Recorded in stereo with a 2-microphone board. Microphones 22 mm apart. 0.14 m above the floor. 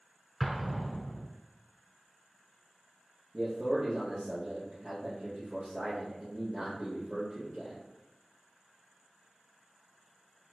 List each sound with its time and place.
0.4 s an explosion: 5° right (ahead or behind), 0.7 m
3.3 s a man speaking: 25° right (ahead or behind), 2.5 m